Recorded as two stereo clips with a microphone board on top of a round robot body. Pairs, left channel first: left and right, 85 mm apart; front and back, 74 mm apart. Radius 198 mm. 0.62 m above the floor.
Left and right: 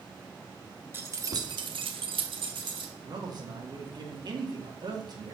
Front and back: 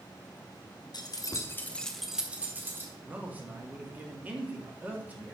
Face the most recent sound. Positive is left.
turn(degrees=-115)